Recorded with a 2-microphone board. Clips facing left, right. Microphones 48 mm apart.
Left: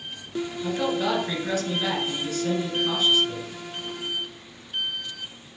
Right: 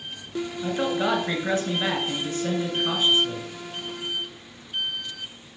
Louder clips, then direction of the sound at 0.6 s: Right 1 dB; 30° right (ahead or behind).